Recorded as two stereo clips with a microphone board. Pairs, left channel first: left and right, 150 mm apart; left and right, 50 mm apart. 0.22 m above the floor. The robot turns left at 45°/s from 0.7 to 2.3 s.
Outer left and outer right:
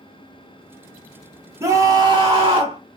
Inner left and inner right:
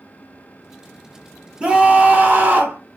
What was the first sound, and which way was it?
A scream, 20° right (ahead or behind).